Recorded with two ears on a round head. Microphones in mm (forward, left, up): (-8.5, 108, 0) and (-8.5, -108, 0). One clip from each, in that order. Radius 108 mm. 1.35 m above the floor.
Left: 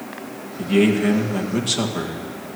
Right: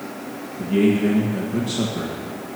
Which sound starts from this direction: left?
A man speaking, at 0.6 s.